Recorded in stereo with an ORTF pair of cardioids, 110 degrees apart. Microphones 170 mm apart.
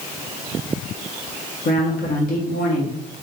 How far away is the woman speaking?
About 1.5 m.